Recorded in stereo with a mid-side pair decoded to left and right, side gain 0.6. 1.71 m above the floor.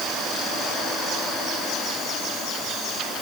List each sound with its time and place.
Only background noise.